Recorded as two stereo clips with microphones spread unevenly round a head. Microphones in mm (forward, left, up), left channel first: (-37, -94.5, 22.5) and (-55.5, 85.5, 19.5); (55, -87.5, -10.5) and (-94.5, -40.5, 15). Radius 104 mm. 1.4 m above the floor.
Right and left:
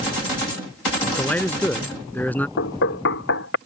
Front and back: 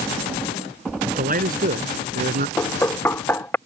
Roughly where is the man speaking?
Behind.